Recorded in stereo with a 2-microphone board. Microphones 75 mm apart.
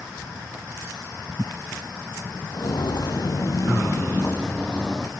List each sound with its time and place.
2.5 s footsteps: 60° left (ahead or behind), 0.9 m; by 5.1 s 5° left (ahead or behind), 1.0 m